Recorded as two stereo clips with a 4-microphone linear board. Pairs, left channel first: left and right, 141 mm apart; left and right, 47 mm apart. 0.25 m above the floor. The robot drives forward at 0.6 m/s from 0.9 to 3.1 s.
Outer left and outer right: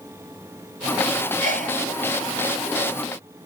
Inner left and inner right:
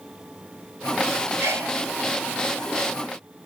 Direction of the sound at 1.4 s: 75° right (ahead or behind).